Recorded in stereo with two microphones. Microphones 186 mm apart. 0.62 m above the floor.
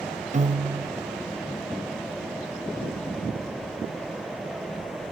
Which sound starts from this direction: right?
A piano, at 0.3 s.